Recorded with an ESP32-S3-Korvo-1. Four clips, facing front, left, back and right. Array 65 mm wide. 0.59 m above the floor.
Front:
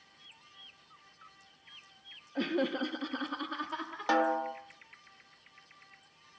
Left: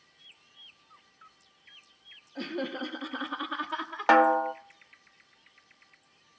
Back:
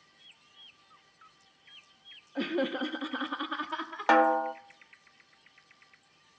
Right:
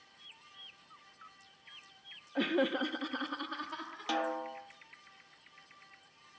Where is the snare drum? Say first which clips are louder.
Left 14 dB, back 6 dB; 115° left, 0.7 m.